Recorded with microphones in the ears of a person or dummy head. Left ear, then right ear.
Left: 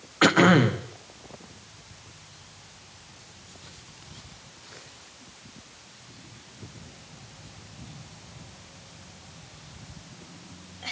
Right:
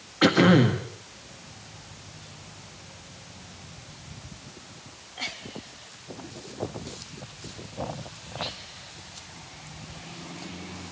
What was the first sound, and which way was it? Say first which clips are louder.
Throat clearing: left 1 dB; 25° left (ahead or behind).